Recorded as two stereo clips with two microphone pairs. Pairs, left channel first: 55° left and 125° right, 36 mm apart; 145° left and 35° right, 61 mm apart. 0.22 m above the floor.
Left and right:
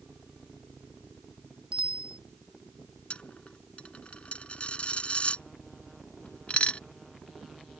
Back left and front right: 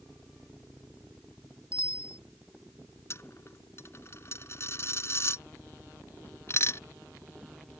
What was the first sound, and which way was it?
A bicycle bell, 175° right.